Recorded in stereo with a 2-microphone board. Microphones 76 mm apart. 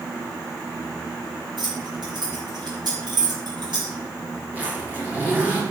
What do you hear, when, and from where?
1.6 s keys jangling: 70° right (ahead or behind), 5 m
4.5 s a zipper: 20° right (ahead or behind), 4 m